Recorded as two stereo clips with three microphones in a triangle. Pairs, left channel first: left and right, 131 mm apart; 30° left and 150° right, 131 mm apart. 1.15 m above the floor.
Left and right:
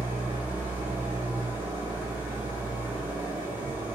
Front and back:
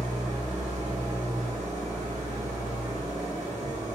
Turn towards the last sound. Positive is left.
turn(degrees=-165)